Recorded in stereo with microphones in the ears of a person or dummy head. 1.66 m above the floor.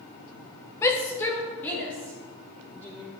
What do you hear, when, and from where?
0.8 s a shout: 15° left (ahead or behind), 0.9 m; by 3.0 s 5° left (ahead or behind), 4 m